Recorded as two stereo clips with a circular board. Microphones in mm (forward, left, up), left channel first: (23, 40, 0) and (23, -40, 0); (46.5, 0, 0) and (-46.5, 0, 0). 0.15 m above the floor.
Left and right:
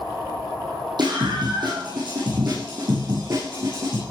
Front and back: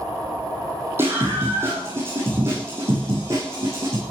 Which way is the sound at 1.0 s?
115° right.